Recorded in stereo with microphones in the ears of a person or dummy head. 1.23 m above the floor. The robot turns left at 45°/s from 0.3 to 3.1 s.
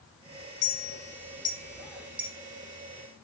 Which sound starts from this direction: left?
A clink, at 0.6 s.